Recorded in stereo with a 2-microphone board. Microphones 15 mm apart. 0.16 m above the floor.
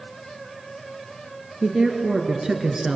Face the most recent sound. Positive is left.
turn(degrees=-35)  # may be behind; listen again after turning